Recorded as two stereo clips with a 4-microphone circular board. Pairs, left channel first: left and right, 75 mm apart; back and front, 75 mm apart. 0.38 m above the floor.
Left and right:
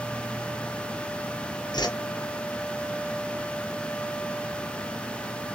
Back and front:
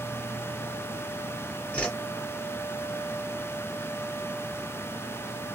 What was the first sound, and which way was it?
A whoosh, 110° left.